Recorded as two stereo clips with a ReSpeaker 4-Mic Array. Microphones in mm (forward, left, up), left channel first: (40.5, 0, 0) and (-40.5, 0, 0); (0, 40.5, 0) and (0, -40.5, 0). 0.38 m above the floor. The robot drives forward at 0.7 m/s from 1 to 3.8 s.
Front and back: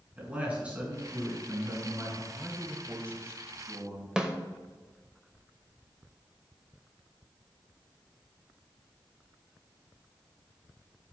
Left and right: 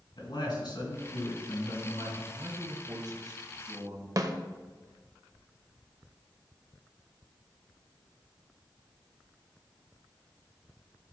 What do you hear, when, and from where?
0.2 s a man speaking: 110° left, 3.5 m; by 2.2 s 120° left, 3.5 m
2.3 s a man speaking: 100° right, 1.6 m; by 4.1 s 135° right, 2 m
4.2 s a snare drum: 100° right, 0.9 m